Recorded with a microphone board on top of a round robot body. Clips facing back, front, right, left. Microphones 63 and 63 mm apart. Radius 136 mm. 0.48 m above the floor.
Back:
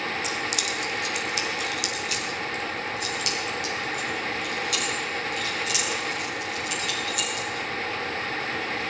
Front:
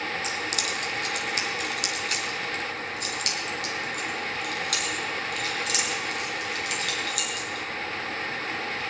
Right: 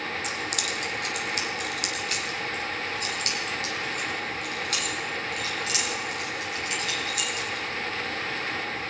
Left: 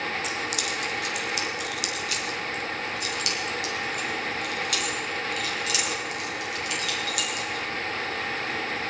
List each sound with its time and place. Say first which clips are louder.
0.2 s keys jangling: back 1 dB, left 1 dB; 50° right, 1.6 m; by 7.7 s 35° right, 5.5 m